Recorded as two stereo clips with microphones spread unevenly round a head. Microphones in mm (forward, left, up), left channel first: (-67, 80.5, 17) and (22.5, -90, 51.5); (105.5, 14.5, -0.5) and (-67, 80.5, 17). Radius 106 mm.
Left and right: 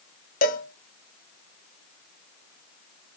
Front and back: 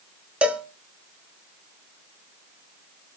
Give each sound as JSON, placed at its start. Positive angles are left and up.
{"t": 0.4, "sound": "a cowbell", "azimuth_deg": 75, "distance_m": 1.7}